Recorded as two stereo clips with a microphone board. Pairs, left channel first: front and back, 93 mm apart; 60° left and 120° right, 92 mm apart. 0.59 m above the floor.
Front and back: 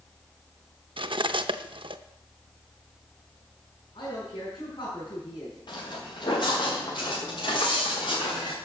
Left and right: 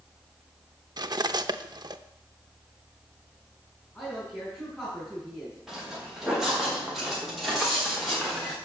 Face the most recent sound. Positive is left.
turn(degrees=-30)